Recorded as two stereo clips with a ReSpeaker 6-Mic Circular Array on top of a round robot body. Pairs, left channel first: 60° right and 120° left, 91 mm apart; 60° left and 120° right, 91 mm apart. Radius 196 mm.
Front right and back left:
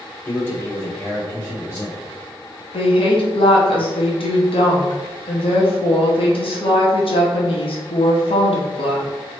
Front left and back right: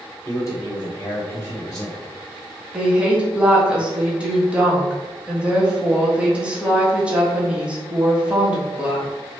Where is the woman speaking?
40° right, 1.3 m.